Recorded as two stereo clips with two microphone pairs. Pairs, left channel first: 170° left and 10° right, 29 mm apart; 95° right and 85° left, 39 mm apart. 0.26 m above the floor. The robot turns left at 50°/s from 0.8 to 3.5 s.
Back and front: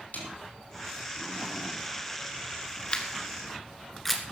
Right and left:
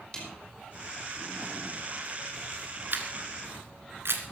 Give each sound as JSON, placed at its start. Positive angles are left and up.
{"t": 0.1, "sound": "a snare drum", "azimuth_deg": -165, "distance_m": 5.0}
{"t": 2.9, "sound": "a camera shutter", "azimuth_deg": 120, "distance_m": 2.0}